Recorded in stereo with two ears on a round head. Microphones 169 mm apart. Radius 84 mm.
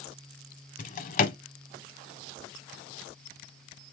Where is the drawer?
45° left (ahead or behind), 0.9 m.